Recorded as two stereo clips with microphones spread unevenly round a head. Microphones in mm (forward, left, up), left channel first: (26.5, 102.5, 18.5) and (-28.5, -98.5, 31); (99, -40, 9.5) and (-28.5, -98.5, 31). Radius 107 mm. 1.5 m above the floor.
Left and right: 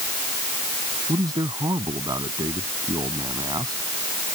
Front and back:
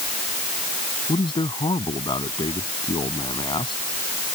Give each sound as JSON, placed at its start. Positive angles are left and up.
{"t": 1.1, "sound": "a man speaking", "azimuth_deg": -30}